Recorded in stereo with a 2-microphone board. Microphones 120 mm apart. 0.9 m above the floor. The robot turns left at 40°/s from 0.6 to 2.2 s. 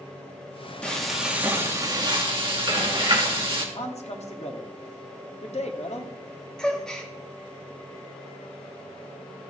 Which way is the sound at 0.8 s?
10° left.